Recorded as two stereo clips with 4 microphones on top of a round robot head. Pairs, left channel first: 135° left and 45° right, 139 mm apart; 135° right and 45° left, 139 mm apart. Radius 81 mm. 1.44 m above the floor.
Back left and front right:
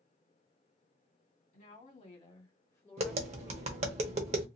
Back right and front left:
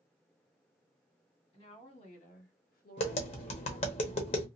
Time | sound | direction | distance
1.5 | a woman speaking | 175° left | 1.6 m
3.0 | tapping | 85° right | 0.9 m